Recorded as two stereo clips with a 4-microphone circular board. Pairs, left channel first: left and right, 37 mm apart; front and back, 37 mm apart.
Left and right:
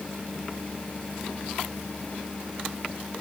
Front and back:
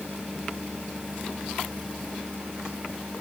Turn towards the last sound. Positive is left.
No sound to turn to.